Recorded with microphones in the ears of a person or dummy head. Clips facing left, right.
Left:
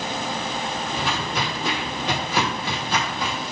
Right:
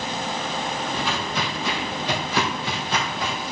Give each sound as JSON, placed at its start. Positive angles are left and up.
{"t": 0.9, "sound": "footsteps", "side_deg": 40, "distance_m": 1.8}